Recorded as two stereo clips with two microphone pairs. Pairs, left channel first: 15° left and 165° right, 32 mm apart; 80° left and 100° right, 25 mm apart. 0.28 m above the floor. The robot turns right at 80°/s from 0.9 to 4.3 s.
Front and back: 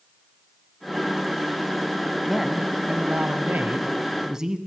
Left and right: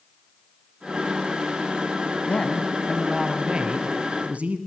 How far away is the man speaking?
About 1.9 m.